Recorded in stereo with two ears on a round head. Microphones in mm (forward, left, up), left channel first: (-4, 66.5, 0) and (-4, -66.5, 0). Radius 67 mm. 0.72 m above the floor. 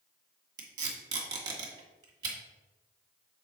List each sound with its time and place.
0.6 s tape being pulled: 30° right (ahead or behind), 1.6 m